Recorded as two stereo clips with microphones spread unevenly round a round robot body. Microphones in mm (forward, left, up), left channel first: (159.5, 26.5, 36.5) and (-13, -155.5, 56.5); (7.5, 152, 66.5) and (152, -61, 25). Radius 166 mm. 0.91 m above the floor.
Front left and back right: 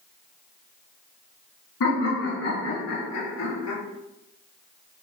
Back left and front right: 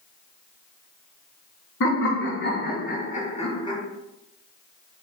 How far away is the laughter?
About 1.5 m.